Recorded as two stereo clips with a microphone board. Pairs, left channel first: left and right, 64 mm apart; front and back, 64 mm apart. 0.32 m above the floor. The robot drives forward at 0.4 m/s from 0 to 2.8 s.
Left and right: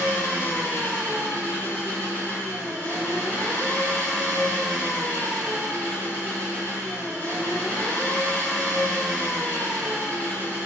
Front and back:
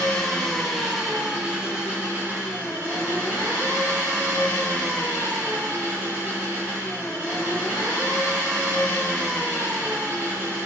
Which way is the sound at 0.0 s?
70° left.